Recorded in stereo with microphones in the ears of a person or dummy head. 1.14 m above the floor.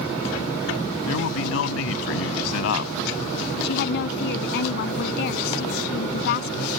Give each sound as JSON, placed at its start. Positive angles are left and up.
{"t": 1.1, "sound": "a man speaking", "side_deg": 85}
{"t": 3.6, "sound": "a woman speaking", "side_deg": 60}